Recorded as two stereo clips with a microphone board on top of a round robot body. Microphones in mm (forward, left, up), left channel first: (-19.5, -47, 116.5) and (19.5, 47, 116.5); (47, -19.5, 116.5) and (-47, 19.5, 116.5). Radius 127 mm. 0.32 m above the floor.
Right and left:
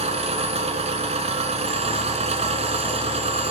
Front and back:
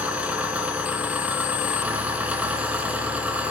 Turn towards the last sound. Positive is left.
turn(degrees=80)